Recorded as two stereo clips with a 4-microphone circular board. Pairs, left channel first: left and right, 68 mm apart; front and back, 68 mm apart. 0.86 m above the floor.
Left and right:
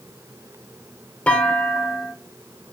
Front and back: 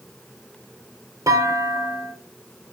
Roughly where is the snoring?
I don't hear snoring.